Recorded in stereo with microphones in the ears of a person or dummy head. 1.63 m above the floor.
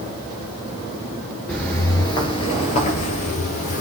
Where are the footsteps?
5° left (ahead or behind), 1.7 m; by 3.8 s 45° left (ahead or behind), 3 m.